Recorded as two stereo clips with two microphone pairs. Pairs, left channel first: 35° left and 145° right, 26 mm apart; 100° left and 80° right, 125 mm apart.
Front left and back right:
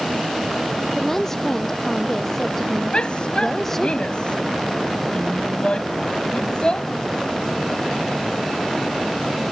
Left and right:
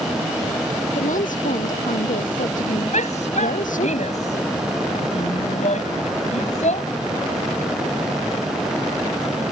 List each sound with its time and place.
0.9 s a woman speaking: 105° left
2.9 s a shout: 80° left